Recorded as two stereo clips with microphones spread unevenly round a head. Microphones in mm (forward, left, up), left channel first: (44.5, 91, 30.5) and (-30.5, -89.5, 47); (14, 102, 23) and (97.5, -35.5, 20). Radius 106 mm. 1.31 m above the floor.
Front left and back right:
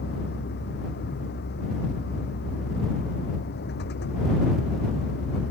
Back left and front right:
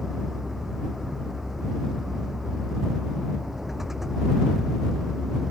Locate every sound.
0.0 s a vehicle: 30° left